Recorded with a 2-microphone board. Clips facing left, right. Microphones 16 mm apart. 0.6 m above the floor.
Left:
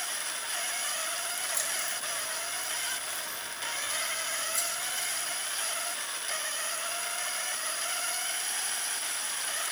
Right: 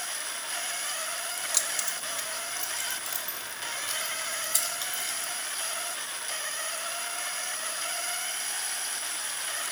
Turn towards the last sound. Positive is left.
turn(degrees=-70)  # may be behind; listen again after turning